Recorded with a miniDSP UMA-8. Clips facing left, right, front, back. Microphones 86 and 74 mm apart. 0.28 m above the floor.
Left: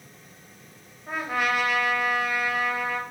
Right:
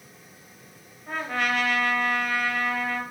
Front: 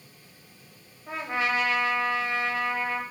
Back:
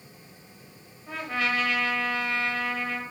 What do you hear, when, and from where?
1.1 s a trumpet: 20° left, 0.6 m